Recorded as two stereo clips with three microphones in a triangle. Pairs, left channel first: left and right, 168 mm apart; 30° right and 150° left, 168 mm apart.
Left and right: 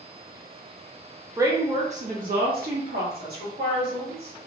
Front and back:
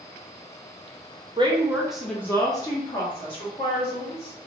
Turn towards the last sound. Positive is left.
turn(degrees=-80)